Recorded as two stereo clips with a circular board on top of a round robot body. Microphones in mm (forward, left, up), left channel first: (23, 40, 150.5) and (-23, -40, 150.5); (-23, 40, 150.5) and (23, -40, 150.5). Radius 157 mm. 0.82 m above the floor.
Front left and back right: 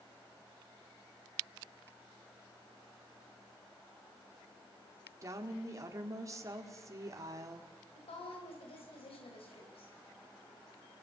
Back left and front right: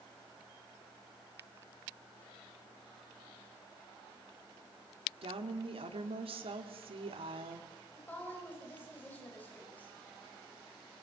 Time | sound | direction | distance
5.2 | a woman speaking | 65° right | 2 m
7.9 | a woman speaking | 50° left | 5 m